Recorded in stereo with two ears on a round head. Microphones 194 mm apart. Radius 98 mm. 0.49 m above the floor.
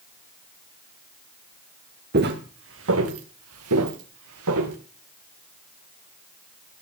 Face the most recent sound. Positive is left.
turn(degrees=-80)